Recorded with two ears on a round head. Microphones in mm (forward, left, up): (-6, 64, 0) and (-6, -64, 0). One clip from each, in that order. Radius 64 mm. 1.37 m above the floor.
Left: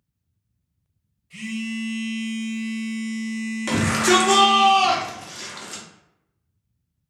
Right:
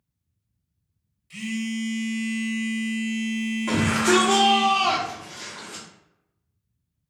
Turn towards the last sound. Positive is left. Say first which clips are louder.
# left 2 dB
turn(degrees=75)  # may be behind; listen again after turning